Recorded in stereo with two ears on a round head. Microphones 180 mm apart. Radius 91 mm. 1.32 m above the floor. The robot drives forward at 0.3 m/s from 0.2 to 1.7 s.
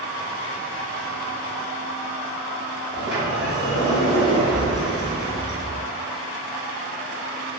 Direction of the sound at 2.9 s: 5° right (ahead or behind).